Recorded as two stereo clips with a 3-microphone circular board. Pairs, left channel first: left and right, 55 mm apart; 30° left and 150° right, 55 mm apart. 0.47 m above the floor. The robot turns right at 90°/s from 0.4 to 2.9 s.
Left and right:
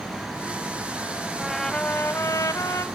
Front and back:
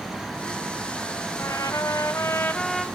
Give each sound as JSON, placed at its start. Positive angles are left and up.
{"t": 1.4, "sound": "a trumpet", "azimuth_deg": -15, "distance_m": 1.4}